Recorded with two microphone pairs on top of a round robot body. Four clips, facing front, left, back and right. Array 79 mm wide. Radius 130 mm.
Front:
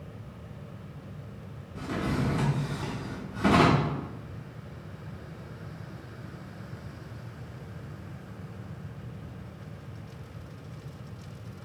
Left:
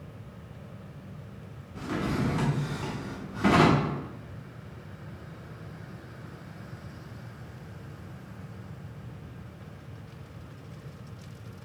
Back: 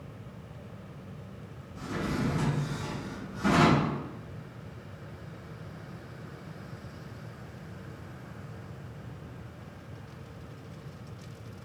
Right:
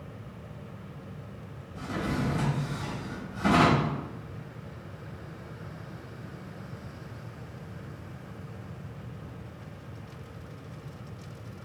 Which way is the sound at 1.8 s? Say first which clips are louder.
Left 1 dB, front 2 dB; 65° left.